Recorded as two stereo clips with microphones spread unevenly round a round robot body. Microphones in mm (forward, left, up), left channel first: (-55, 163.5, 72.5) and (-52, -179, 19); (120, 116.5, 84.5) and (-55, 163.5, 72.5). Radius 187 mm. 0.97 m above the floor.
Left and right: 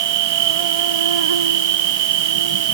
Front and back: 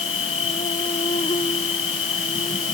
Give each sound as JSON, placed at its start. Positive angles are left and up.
{"t": 0.0, "sound": "an insect", "azimuth_deg": -90}